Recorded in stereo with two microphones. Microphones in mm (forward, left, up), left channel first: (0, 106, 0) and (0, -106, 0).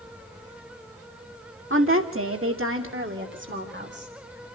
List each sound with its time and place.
1.7 s a woman speaking: 70° right (ahead or behind), 2 m; by 4.5 s 50° right (ahead or behind), 4 m